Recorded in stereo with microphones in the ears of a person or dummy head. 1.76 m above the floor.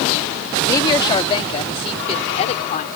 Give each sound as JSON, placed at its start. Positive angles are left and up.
{"t": 0.6, "sound": "a woman speaking", "side_deg": 15}